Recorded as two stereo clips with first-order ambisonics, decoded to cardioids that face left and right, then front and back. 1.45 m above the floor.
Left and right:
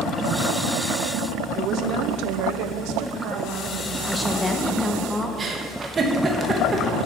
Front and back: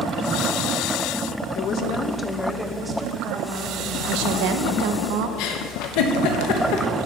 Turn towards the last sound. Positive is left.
turn(degrees=-20)